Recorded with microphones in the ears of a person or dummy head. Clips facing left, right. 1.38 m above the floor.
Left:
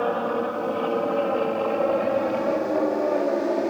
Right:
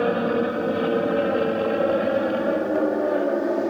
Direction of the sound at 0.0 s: 25° right (ahead or behind).